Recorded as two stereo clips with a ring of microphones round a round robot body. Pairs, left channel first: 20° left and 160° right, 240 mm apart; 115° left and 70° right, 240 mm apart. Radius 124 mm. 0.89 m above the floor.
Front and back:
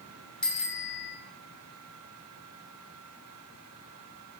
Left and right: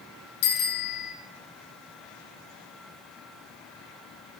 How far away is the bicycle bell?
About 2.5 m.